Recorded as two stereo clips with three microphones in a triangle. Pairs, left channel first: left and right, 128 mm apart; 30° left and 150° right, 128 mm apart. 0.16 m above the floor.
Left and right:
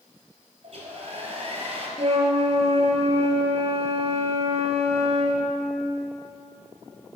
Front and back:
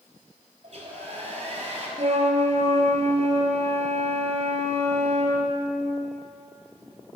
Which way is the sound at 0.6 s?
120° right.